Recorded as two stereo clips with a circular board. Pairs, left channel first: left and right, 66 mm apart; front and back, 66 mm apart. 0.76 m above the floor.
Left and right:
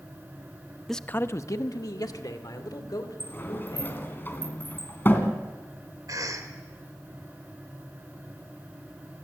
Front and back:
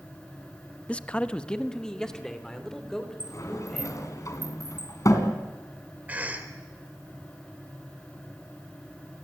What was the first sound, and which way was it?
A man speaking, 5° left.